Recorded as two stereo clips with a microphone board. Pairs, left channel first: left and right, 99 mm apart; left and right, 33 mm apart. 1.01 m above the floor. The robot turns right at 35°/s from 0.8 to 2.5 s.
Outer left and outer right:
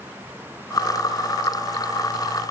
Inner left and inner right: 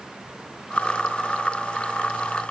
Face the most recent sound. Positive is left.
No sound to turn to.